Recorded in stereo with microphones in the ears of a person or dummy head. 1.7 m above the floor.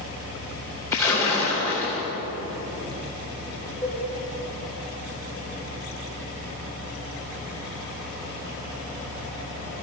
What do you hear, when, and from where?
0.9 s a splash: 15° left (ahead or behind), 2.5 m
3.8 s a cowbell: 25° left (ahead or behind), 1.9 m